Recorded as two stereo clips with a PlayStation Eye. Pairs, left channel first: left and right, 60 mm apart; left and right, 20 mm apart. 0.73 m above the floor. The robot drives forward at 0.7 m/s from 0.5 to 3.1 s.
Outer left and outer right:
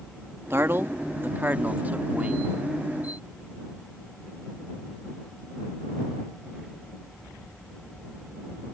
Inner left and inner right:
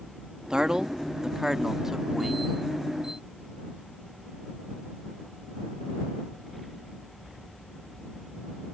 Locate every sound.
0.5 s a man speaking: 45° right (ahead or behind); by 2.5 s 25° right (ahead or behind)